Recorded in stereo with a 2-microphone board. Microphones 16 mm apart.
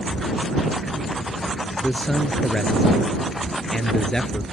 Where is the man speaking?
30° left (ahead or behind).